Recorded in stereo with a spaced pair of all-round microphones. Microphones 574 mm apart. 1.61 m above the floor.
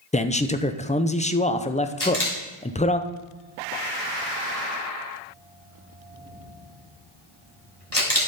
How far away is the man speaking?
About 0.6 m.